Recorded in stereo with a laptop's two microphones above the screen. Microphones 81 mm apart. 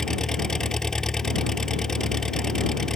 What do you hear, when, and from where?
0.0 s an engine running: 5° left (ahead or behind)